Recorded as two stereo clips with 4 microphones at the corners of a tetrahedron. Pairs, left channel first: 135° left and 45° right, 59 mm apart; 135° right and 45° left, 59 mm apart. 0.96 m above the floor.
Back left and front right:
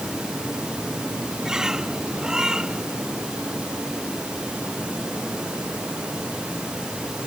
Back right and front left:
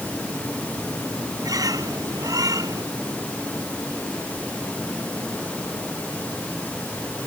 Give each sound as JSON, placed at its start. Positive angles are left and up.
{"t": 1.4, "sound": "a bird", "azimuth_deg": 35}